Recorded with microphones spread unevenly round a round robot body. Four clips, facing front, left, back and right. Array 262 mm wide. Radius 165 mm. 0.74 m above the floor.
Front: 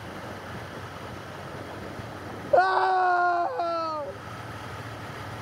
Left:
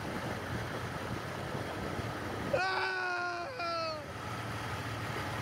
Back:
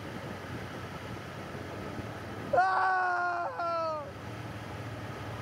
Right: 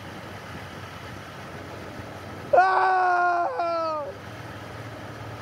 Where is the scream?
40° right; by 4.2 s 50° right.